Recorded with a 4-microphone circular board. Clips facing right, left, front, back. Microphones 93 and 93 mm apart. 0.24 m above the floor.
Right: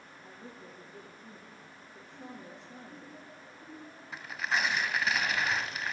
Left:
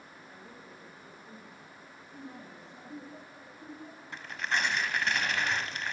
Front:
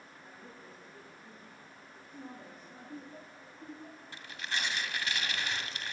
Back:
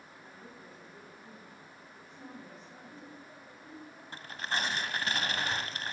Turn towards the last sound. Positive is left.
turn(degrees=-175)